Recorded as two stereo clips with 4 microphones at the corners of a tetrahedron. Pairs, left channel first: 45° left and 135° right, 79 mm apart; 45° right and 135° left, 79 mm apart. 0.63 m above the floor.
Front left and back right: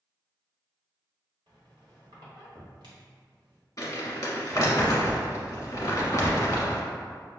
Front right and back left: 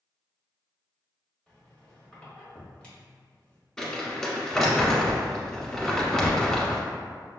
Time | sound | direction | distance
1.5 | a squeak | 120° right | 1.3 m
3.8 | crumpling | 35° left | 1.1 m